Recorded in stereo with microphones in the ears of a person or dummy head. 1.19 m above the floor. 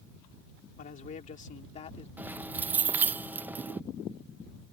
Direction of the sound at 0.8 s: 45° left (ahead or behind).